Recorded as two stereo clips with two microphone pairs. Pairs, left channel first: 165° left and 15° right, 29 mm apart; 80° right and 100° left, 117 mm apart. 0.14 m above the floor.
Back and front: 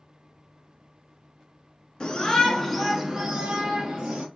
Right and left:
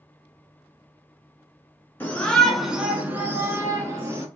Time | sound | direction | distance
2.0 | a shout | 150° right | 1.3 m